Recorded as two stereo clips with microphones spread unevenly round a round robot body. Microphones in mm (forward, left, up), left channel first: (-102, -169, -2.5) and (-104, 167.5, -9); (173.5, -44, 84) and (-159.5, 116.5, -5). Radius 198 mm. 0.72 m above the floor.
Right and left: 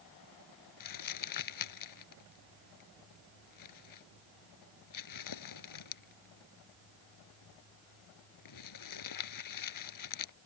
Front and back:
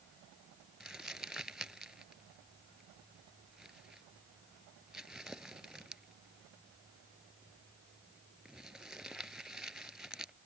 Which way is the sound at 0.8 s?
115° right.